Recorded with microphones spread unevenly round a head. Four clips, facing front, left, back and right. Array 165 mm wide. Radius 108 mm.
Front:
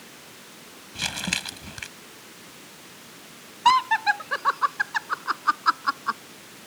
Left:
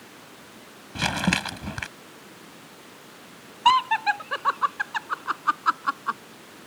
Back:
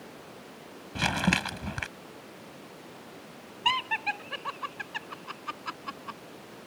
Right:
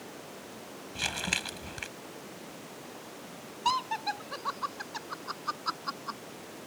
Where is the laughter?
45° left.